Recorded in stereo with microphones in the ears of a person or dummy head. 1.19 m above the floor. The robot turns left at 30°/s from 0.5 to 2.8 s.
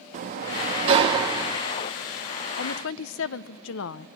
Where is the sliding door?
125° right, 0.7 m; by 1.6 s 160° right, 0.7 m.